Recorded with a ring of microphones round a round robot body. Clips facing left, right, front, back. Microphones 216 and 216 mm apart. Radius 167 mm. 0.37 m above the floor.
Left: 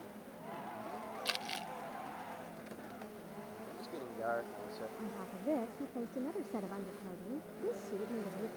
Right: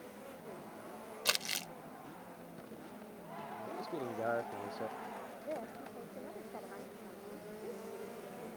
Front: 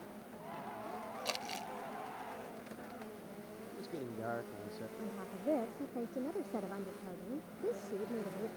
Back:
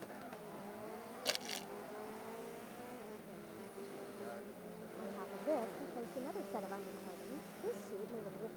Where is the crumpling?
100° right.